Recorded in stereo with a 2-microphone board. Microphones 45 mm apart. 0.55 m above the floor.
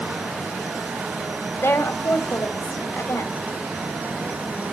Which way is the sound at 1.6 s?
70° left (ahead or behind).